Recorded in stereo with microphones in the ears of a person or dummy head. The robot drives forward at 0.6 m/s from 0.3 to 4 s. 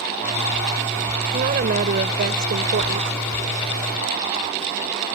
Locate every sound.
1.3 s a woman speaking: 50° right (ahead or behind); by 3.1 s 65° right (ahead or behind)